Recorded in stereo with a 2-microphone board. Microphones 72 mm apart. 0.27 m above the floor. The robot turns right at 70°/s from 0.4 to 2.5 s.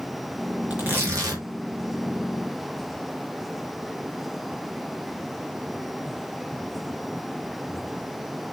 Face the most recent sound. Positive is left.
turn(degrees=-40)